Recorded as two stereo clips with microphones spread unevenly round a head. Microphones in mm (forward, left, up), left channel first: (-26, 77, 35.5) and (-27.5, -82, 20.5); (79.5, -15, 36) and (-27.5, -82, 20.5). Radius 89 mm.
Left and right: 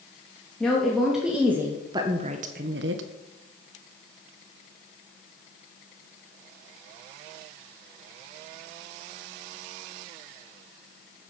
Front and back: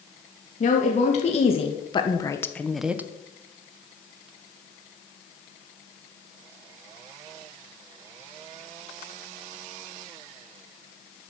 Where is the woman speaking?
5° left, 3 m; by 3.0 s 75° right, 1.4 m.